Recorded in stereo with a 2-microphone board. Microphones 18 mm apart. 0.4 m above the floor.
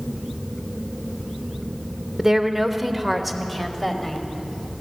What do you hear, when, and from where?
2.2 s a woman speaking: 20° right (ahead or behind), 0.8 m; by 4.2 s 5° left (ahead or behind), 1.6 m